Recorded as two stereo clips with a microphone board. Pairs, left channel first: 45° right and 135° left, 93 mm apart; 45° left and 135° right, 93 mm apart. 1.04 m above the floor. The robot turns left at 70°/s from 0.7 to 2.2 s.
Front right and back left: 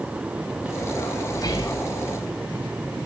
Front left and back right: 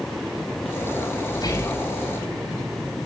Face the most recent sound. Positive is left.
turn(degrees=-55)